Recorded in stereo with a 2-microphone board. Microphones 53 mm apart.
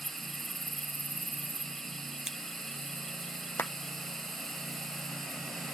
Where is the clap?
45° left (ahead or behind).